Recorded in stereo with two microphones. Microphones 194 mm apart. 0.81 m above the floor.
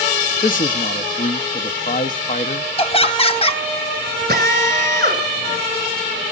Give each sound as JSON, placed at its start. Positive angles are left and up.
{"t": 0.4, "sound": "a man speaking", "side_deg": 45, "distance_m": 1.0}
{"t": 2.8, "sound": "laughter", "side_deg": 30, "distance_m": 1.1}
{"t": 4.3, "sound": "a drill", "side_deg": -50, "distance_m": 4.5}